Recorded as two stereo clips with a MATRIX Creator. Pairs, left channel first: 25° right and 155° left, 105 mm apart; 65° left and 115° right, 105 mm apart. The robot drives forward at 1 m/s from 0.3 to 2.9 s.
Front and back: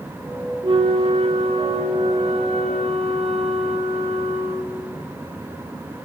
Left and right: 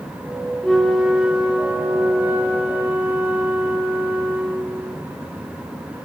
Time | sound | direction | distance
0.6 | a flute | 155° left | 0.7 m